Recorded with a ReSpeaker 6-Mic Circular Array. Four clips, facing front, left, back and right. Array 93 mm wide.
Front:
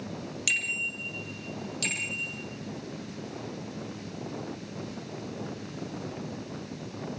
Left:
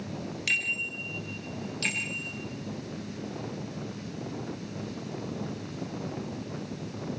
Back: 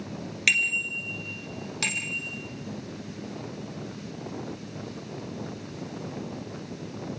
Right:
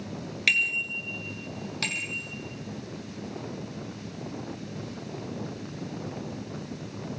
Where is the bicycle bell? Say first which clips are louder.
Right 4 dB, back 5 dB; 140° right, 3.5 m; by 2.3 s 135° right, 5.5 m.